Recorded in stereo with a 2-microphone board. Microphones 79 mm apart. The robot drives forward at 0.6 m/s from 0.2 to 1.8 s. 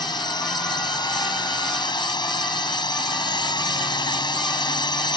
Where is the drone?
65° left (ahead or behind); by 5.2 s 70° left (ahead or behind).